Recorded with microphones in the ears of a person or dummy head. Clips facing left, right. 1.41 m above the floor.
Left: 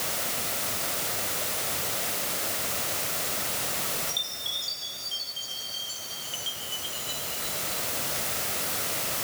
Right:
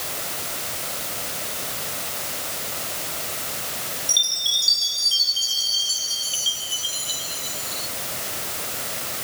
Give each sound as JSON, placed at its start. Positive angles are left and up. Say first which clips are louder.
{"t": 4.1, "sound": "a chime", "louder": "right 1 dB", "side_deg": -60}